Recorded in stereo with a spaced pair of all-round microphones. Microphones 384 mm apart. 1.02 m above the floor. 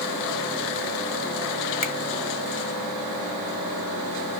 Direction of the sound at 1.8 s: 45° left (ahead or behind).